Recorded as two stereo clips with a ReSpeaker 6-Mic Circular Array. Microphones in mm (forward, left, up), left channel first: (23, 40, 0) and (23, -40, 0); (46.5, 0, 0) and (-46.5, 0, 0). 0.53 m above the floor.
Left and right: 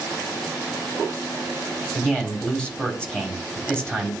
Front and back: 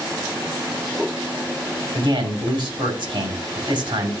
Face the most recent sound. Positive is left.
turn(degrees=170)